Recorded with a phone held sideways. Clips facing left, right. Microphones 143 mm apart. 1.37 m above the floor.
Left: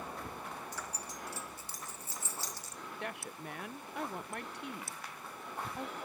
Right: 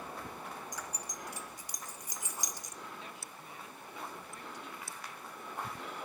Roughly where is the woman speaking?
Left.